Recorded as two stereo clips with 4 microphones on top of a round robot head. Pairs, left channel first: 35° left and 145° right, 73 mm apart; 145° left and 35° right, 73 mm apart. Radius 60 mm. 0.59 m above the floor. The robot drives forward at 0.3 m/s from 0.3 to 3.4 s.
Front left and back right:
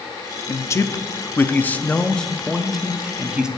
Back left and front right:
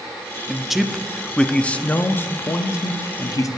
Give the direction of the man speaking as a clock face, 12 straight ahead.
10 o'clock.